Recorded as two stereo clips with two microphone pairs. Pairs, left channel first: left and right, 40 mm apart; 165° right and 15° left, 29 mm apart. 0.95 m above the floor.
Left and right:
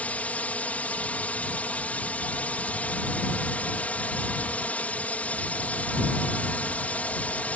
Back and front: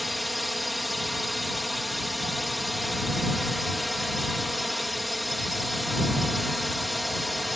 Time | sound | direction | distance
0.0 | a drone | 100° left | ?